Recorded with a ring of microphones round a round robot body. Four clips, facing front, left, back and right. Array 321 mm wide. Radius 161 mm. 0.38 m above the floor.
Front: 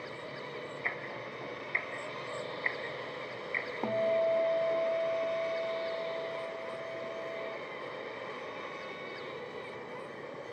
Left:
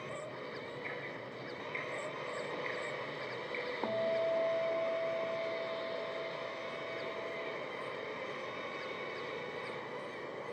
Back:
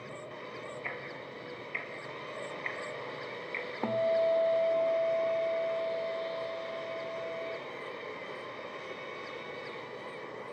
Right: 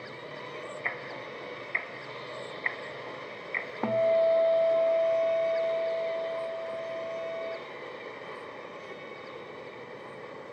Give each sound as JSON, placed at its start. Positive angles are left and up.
{"t": 0.8, "sound": "ticking", "azimuth_deg": -75, "distance_m": 1.9}
{"t": 3.8, "sound": "a guitar", "azimuth_deg": -105, "distance_m": 0.6}